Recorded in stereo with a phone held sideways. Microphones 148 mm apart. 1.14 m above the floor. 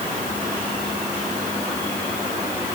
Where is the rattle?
I don't hear a rattle.